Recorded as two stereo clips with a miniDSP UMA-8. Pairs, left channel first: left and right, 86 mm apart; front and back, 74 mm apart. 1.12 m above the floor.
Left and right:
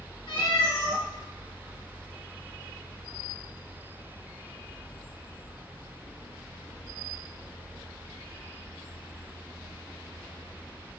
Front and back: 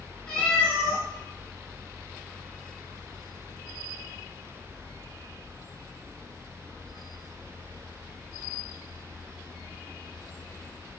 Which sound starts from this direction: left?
A cat meowing, at 0.3 s.